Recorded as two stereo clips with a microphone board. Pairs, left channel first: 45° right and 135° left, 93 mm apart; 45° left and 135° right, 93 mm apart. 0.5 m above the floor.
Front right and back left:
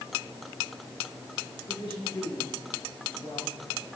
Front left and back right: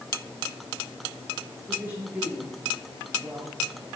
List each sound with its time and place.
1.7 s a woman speaking: 65° right, 7.5 m